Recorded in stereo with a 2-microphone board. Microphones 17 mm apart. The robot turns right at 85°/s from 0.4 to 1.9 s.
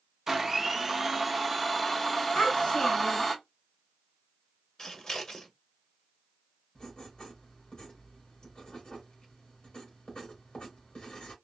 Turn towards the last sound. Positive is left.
turn(degrees=65)  # may be behind; listen again after turning